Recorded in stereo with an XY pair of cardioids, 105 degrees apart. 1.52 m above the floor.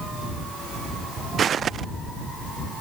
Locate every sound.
1.4 s footsteps: 50° right